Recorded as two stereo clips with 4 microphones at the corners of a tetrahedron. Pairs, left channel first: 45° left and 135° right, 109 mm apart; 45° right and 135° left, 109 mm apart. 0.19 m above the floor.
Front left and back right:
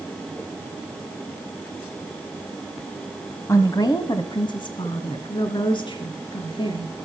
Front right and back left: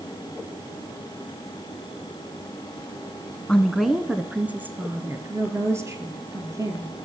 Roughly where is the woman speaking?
Ahead left.